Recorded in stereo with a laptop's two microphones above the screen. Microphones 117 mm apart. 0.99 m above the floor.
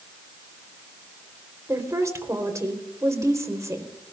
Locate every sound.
1.7 s a woman speaking: 25° right (ahead or behind), 3.5 m